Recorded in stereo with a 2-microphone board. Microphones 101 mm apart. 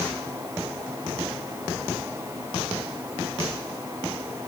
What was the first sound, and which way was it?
Only background noise.